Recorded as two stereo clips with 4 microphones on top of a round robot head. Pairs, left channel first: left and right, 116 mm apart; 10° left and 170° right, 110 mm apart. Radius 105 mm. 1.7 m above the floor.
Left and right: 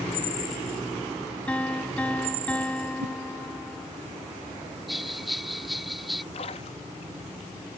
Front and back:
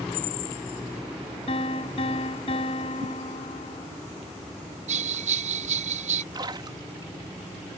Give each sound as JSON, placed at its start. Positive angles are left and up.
{"t": 1.5, "sound": "a piano", "azimuth_deg": 15}
{"t": 3.0, "sound": "a whoosh", "azimuth_deg": -115}
{"t": 4.9, "sound": "a bell", "azimuth_deg": 180}
{"t": 6.3, "sound": "a splash", "azimuth_deg": 140}